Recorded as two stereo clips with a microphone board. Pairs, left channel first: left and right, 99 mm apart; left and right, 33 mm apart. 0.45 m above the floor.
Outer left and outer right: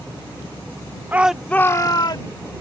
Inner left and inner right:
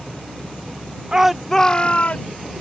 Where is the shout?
20° right (ahead or behind); by 2.3 s 55° left (ahead or behind).